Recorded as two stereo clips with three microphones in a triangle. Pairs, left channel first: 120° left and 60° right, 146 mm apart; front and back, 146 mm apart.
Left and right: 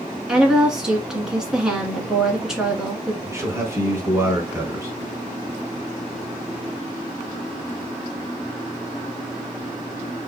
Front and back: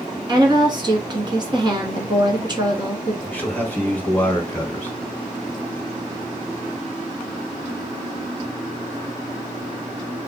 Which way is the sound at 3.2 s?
50° right.